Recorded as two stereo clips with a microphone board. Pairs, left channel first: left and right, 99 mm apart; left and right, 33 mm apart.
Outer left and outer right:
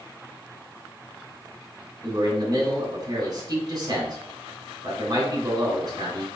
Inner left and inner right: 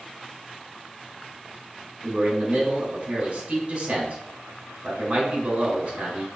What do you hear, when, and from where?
2.0 s a man speaking: 40° right (ahead or behind), 2 m